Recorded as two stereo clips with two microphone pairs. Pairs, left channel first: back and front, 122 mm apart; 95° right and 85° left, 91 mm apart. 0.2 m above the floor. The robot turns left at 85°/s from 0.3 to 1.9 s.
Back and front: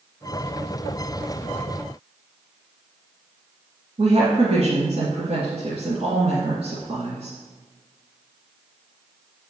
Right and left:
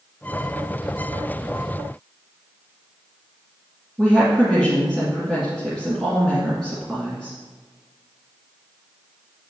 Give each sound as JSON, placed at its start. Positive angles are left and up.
{"t": 4.0, "sound": "a woman speaking", "azimuth_deg": -10, "distance_m": 2.0}